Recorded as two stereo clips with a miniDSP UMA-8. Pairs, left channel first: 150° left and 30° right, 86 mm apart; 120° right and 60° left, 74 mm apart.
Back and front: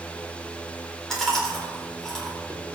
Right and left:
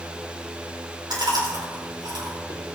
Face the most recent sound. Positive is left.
turn(degrees=65)